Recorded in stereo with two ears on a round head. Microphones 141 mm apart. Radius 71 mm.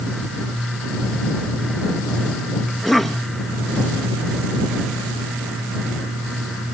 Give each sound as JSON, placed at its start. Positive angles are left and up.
{"t": 2.7, "sound": "a cough", "side_deg": 0}